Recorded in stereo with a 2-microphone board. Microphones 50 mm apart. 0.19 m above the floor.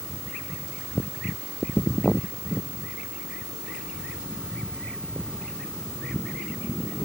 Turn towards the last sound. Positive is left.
No sound to turn to.